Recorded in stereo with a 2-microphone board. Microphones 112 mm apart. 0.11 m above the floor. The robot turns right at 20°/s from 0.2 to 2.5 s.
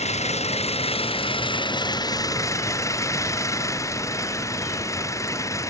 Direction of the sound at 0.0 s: 105° left.